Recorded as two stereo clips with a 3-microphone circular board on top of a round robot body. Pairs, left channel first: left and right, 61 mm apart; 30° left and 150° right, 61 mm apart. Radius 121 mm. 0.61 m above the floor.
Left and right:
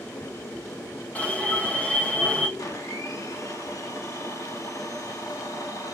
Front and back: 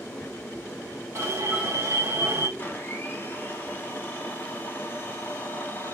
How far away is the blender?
About 1.8 m.